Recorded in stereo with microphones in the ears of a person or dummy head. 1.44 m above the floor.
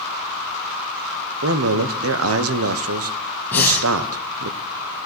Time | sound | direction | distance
1.4 | a man speaking | 75° right (ahead or behind) | 0.9 m
3.5 | breathing | 10° left (ahead or behind) | 2.5 m